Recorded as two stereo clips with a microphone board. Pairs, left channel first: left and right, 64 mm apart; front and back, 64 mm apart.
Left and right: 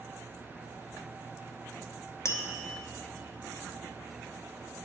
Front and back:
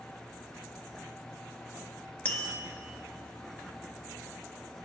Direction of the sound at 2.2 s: 65° left.